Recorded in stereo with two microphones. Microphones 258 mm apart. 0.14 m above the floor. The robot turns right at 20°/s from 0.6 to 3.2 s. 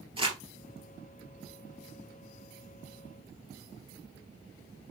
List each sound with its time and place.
0.2 s crumpling: 20° right (ahead or behind), 1.9 m